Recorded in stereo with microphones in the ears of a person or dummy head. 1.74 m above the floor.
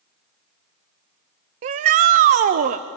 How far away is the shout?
About 0.5 m.